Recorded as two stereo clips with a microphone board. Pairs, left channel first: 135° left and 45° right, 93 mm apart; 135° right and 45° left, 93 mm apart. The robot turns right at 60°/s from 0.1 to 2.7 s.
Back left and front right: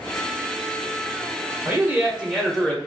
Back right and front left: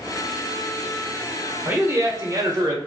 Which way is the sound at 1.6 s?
Straight ahead.